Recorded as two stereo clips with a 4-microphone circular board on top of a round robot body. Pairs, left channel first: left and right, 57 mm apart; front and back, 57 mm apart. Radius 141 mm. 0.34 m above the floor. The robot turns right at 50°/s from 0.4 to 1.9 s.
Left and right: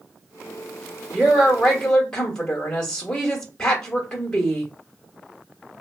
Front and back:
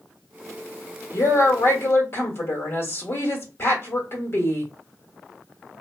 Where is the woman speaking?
20° right, 1.3 m; by 4.7 s 20° left, 1.3 m.